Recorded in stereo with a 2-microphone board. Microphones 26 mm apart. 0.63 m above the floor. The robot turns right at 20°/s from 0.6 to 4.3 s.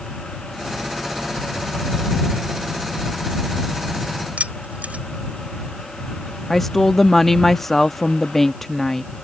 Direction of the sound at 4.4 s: 70° right (ahead or behind).